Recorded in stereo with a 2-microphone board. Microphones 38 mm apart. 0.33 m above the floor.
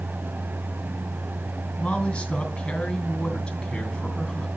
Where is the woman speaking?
25° left (ahead or behind), 3 m.